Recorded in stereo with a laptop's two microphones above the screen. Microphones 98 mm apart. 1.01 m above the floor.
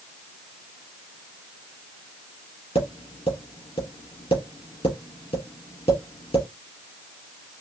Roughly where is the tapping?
Left.